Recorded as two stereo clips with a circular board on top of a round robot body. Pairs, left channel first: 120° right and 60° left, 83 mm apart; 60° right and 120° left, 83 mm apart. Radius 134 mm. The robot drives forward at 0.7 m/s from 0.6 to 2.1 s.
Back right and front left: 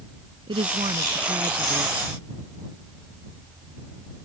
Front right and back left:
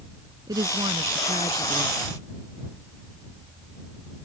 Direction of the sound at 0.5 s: 80° left.